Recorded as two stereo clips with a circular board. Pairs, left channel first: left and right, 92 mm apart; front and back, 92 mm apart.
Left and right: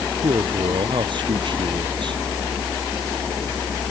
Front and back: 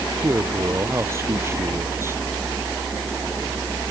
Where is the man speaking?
120° right.